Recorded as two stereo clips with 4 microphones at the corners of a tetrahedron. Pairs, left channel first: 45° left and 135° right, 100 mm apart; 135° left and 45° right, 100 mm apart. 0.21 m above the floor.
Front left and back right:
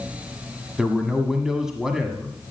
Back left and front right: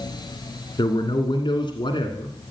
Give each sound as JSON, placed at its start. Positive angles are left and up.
{"t": 0.8, "sound": "a man speaking", "azimuth_deg": 140, "distance_m": 1.6}